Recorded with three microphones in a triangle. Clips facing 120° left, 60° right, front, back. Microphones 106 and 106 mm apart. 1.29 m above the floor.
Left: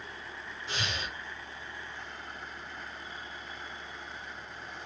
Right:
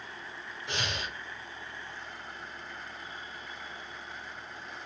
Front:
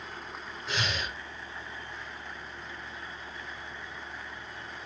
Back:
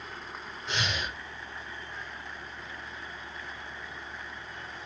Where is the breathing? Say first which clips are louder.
Right 1 dB, even; 85° right, 1.9 m.